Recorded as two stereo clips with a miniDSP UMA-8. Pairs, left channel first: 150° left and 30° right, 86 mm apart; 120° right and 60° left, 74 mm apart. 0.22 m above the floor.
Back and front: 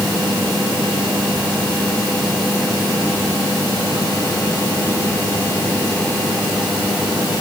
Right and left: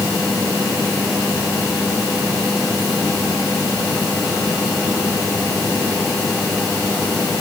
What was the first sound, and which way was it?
Only background noise.